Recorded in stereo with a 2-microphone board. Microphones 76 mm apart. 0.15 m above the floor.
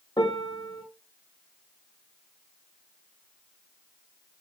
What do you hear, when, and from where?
0.2 s a piano: 80° left, 3 m